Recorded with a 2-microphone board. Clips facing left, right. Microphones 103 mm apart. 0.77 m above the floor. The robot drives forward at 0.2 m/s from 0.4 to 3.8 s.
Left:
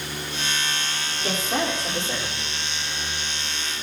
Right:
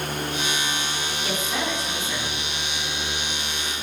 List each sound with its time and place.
1.2 s a woman speaking: 40° left (ahead or behind), 2.5 m; by 2.5 s 35° left (ahead or behind), 2.5 m